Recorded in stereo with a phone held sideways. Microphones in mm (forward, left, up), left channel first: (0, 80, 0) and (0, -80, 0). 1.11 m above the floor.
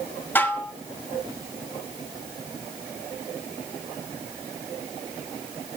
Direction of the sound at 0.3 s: 10° left (ahead or behind).